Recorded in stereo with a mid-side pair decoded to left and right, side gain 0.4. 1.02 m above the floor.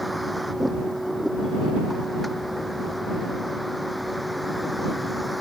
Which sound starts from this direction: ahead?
A vehicle, at 0.0 s.